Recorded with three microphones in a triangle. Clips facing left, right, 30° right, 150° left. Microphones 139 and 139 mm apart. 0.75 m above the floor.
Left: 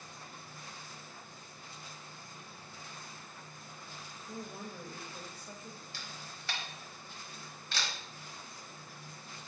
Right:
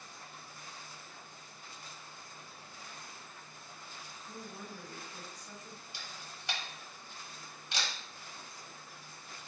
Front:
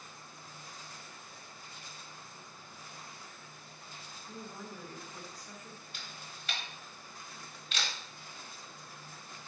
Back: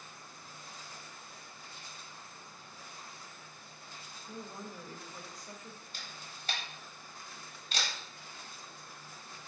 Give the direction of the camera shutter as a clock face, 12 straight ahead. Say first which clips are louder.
Left 1 dB, even; 5 o'clock.